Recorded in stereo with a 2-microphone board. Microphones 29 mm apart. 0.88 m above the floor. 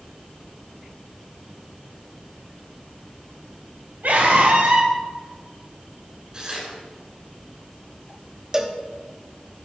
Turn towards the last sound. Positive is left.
turn(degrees=-20)  # may be behind; listen again after turning